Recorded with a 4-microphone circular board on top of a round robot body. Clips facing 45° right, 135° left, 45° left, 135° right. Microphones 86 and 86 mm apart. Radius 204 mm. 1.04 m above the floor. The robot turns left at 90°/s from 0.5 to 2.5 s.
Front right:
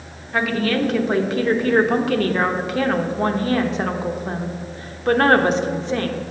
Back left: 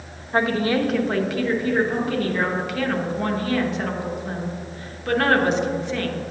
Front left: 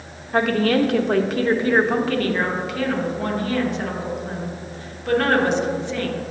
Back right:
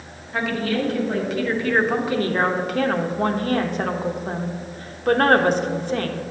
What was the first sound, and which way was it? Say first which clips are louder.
A woman speaking: even, front left 5 dB; 85° left.